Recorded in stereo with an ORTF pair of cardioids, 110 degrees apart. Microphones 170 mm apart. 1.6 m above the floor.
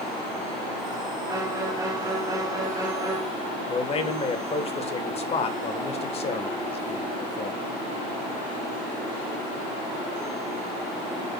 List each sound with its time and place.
1.3 s a violin: 20° right, 3 m
3.7 s a man speaking: 35° left, 1.7 m